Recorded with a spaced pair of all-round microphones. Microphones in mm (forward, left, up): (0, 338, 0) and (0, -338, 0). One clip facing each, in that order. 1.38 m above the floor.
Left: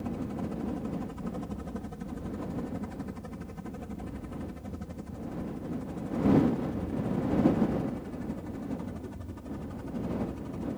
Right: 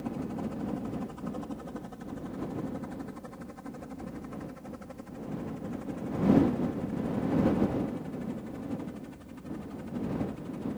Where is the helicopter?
45° left (ahead or behind); by 10.8 s 70° left (ahead or behind).